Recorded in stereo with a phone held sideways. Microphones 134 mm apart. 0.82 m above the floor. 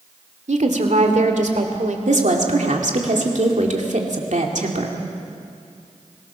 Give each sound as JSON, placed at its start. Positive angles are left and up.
{"t": 0.5, "sound": "a woman speaking", "side_deg": -65, "distance_m": 1.9}
{"t": 2.1, "sound": "a woman speaking", "side_deg": -65, "distance_m": 2.5}